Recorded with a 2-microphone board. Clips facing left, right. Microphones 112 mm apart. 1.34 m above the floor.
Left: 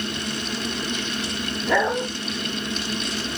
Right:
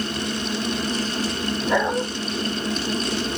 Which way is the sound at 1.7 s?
20° right (ahead or behind).